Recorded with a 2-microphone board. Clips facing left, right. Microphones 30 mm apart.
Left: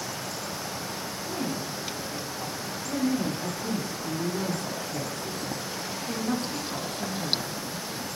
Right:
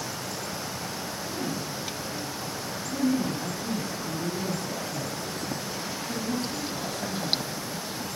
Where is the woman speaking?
80° left, 9 m; by 7.8 s 50° left (ahead or behind), 7.5 m.